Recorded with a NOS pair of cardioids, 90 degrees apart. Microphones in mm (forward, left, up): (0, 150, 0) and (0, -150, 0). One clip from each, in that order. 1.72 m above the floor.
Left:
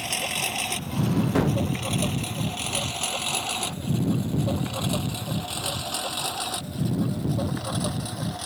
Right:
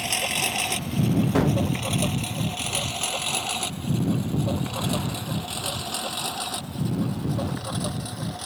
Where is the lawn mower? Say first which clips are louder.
Right 2 dB; 25° right; by 8.5 s straight ahead.